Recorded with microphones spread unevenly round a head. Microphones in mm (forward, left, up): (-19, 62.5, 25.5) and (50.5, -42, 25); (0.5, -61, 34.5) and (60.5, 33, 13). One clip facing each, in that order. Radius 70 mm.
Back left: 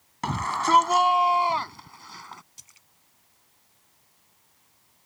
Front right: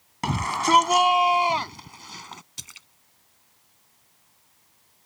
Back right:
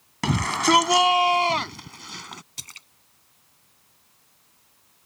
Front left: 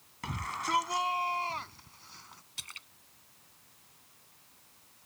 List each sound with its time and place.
0.2 s a shout: 135° right; by 2.4 s 125° right
2.6 s a splash: 80° right